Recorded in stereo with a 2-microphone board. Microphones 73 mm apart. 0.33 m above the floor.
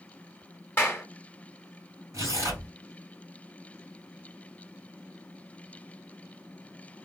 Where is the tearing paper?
45° right (ahead or behind), 2 m.